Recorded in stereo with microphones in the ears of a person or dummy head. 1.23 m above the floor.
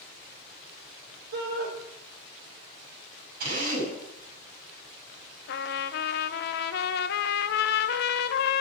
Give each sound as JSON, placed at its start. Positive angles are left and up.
{"t": 1.3, "sound": "a shout", "side_deg": -55, "distance_m": 4.0}
{"t": 3.4, "sound": "a drill", "side_deg": -50, "distance_m": 7.5}
{"t": 5.5, "sound": "a trumpet", "side_deg": 60, "distance_m": 0.9}